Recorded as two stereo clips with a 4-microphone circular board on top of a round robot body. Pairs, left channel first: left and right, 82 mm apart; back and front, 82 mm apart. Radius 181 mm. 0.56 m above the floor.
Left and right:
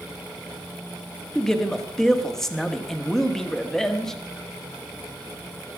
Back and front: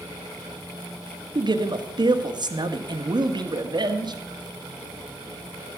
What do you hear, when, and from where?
1.4 s a man speaking: 5° left, 1.7 m